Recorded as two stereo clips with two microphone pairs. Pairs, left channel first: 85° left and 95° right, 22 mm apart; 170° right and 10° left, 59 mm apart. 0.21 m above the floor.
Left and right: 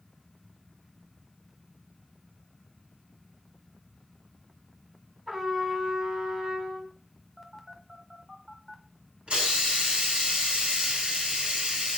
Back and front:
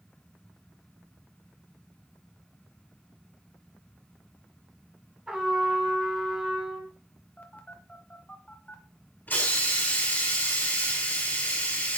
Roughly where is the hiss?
Right.